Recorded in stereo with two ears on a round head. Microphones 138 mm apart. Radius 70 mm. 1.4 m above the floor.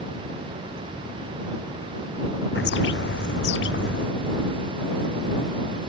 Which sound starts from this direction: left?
A bird, at 2.5 s.